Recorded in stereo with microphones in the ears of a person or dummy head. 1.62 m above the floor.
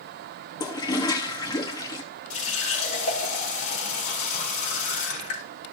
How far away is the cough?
No cough in this recording.